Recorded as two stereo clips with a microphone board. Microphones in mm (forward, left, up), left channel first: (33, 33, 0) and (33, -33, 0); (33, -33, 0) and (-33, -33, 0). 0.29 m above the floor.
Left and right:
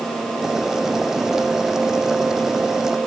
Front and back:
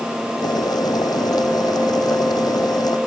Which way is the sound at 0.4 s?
10° right.